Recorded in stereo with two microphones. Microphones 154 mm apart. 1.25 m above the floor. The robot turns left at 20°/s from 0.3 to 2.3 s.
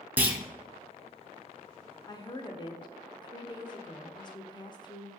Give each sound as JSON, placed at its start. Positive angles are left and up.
{"t": 0.2, "sound": "a clunk", "side_deg": -10, "distance_m": 0.5}
{"t": 2.1, "sound": "a woman speaking", "side_deg": 25, "distance_m": 0.6}